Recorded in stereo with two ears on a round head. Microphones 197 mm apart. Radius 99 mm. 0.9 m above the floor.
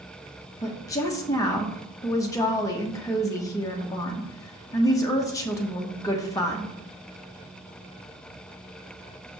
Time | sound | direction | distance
0.6 | a woman speaking | 15° left (ahead or behind) | 1.0 m